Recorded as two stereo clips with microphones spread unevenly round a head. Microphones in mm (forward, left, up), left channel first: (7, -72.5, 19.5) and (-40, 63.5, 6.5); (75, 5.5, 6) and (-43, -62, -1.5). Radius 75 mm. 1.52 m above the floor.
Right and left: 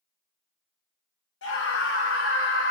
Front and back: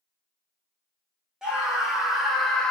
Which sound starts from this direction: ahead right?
A scream, at 1.4 s.